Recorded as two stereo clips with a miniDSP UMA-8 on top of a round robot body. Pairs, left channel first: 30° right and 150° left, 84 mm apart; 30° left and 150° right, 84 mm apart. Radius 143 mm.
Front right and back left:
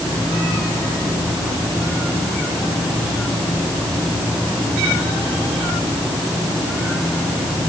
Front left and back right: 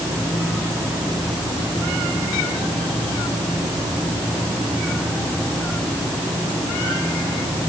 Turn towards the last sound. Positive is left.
No sound to turn to.